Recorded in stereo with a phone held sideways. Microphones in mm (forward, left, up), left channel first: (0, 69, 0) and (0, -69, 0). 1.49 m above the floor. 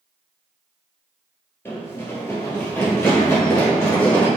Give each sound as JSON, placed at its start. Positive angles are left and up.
{"t": 1.6, "sound": "running footsteps", "side_deg": 15, "distance_m": 1.5}